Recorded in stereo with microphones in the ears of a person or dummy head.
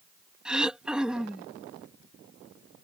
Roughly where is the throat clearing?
Centre.